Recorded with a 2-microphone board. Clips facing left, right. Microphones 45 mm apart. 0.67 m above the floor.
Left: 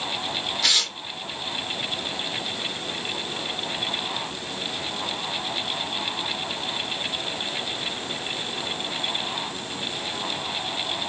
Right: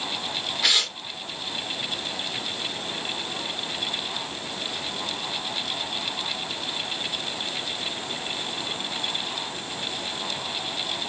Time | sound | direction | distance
0.6 | tearing paper | 10° right (ahead or behind) | 0.7 m